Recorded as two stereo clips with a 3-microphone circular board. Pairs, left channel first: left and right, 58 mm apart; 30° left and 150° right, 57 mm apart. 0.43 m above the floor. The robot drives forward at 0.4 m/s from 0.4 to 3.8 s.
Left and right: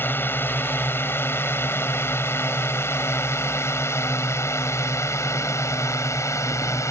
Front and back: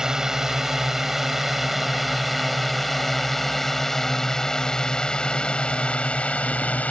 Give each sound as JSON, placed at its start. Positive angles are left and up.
{"t": 0.0, "sound": "a drone", "azimuth_deg": 130}